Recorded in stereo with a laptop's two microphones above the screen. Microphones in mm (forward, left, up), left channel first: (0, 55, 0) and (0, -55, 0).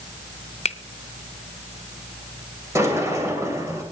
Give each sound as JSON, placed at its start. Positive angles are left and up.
{"t": 0.7, "sound": "a finger snap", "side_deg": 85, "distance_m": 0.7}
{"t": 2.8, "sound": "a sliding door", "side_deg": -25, "distance_m": 2.5}